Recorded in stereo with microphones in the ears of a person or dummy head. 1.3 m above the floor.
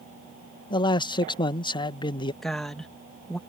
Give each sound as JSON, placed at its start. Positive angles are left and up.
{"t": 0.7, "sound": "a man speaking", "side_deg": 20}
{"t": 2.4, "sound": "a woman speaking", "side_deg": 10}